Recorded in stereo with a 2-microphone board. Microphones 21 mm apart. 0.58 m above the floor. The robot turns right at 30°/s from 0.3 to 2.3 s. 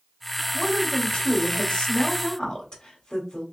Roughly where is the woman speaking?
Left.